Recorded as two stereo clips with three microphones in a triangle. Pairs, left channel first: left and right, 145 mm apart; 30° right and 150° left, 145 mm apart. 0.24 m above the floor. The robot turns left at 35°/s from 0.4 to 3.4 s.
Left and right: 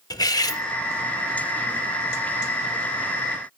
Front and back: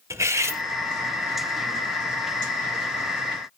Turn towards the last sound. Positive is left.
turn(degrees=0)